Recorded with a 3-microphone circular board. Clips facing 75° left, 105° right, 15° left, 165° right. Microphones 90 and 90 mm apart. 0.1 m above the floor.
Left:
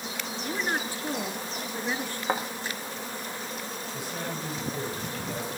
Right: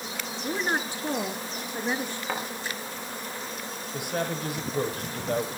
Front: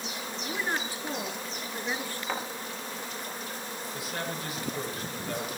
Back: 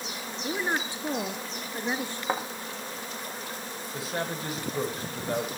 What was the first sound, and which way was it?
A woman speaking, 140° right.